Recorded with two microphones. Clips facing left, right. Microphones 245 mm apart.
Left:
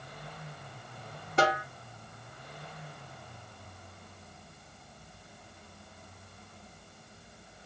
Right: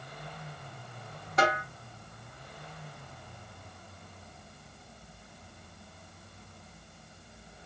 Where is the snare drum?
30° left (ahead or behind), 2 m.